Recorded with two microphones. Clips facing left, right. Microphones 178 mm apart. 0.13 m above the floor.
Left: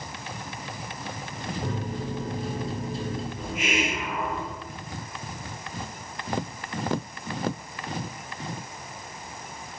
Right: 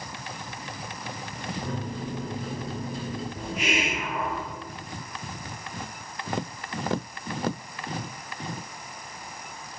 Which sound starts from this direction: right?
A hiss, at 3.4 s.